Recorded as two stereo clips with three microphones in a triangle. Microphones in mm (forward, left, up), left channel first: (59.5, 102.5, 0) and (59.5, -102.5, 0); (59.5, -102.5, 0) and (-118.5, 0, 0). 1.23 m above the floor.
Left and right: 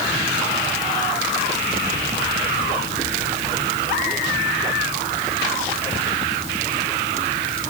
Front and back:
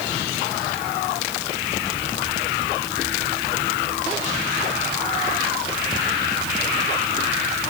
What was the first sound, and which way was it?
Only background noise.